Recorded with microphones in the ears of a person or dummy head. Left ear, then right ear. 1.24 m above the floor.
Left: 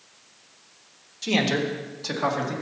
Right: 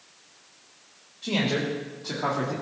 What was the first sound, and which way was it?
A man speaking, 80° left.